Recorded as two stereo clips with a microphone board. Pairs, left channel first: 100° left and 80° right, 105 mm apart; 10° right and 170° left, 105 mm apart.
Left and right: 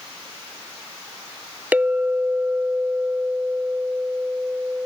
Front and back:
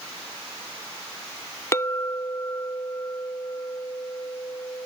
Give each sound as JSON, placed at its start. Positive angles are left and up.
{"t": 1.7, "sound": "a clink", "azimuth_deg": -25}